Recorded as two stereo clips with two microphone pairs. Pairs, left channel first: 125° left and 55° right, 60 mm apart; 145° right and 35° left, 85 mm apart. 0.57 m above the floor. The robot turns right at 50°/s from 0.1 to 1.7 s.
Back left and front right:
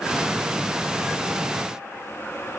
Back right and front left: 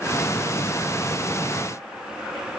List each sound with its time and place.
Only background noise.